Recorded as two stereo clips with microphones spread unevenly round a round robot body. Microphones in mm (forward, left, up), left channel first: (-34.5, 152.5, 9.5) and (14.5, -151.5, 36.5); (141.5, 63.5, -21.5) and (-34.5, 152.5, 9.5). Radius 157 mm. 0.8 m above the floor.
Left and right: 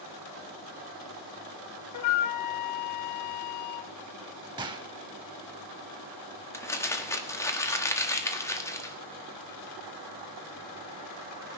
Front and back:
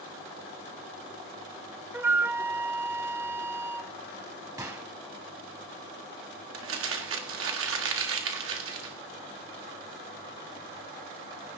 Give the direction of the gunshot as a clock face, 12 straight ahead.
5 o'clock.